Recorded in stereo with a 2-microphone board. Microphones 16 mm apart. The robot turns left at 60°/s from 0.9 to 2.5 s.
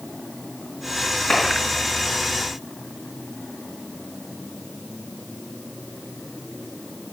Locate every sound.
1.3 s a clap: 80° left, 4.5 m; by 1.4 s 75° left (ahead or behind), 4.5 m